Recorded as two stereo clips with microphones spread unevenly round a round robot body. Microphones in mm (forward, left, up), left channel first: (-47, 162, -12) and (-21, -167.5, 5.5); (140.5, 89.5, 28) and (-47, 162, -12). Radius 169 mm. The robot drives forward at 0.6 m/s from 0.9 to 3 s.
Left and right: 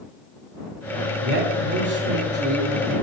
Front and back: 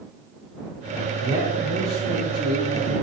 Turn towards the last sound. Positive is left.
turn(degrees=-150)